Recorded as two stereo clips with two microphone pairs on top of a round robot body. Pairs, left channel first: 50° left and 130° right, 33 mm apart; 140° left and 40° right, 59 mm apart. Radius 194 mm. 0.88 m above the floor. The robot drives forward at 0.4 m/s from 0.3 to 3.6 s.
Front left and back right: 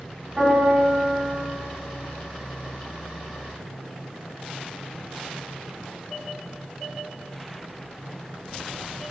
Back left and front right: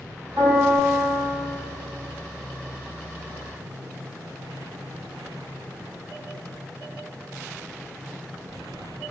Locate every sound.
0.4 s a piano: 55° right, 8 m; by 1.3 s 60° right, 8 m